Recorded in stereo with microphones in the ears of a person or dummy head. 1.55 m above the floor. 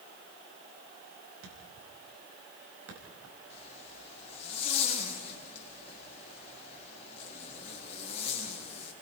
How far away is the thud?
About 5 m.